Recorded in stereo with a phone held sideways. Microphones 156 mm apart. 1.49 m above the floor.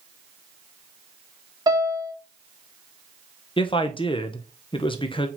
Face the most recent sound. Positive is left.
turn(degrees=35)  # may be behind; listen again after turning